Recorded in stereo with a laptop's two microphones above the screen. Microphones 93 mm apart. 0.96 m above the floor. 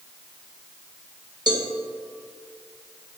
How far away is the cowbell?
About 1.2 m.